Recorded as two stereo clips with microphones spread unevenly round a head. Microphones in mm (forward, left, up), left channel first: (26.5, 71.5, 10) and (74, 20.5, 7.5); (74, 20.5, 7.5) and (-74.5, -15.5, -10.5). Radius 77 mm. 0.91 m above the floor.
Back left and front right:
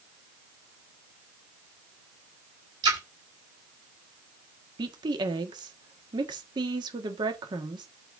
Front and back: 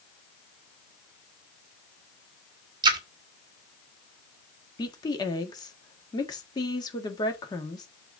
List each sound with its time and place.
2.8 s a splash: 105° right, 1.3 m
4.8 s a woman speaking: 55° right, 1.4 m